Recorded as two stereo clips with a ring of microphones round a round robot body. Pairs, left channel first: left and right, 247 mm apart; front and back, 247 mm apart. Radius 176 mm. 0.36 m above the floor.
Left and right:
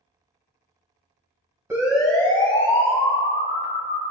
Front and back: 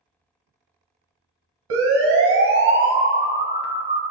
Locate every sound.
1.7 s a siren: 170° right, 2.5 m; by 4.0 s 120° left, 3.5 m